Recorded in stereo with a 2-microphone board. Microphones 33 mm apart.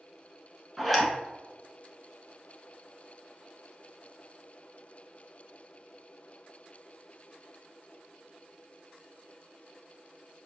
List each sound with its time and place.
0.8 s a zipper: centre (ahead or behind), 0.8 m